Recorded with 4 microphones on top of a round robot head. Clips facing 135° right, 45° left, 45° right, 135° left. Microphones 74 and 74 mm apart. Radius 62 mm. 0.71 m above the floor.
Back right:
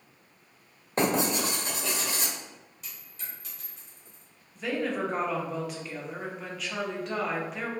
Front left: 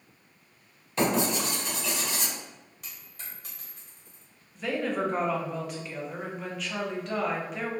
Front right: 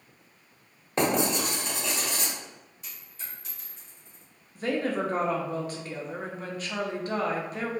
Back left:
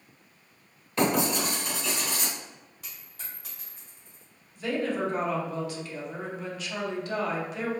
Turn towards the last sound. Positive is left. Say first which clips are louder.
# front left 1 dB, front right 1 dB
turn(degrees=-45)